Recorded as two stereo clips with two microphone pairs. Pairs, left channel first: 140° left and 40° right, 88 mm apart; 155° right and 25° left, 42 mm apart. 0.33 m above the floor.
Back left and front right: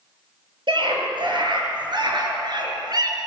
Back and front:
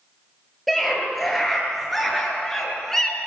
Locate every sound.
0.7 s a scream: 65° right, 7.5 m; by 3.2 s 75° right, 4 m